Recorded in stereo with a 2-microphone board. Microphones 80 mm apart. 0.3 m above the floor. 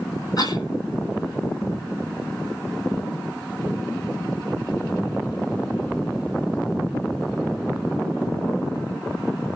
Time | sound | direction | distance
0.4 | a cough | 55° left (ahead or behind) | 2 m